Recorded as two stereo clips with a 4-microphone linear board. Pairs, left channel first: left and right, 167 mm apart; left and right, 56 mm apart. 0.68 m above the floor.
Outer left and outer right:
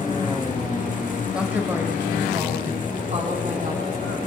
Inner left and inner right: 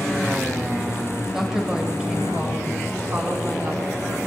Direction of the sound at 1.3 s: 5° right (ahead or behind).